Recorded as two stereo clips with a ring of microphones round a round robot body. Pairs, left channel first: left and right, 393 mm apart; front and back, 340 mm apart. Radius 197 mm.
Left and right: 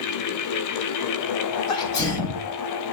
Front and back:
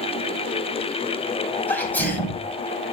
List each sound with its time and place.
1.7 s a sneeze: 85° left, 4.5 m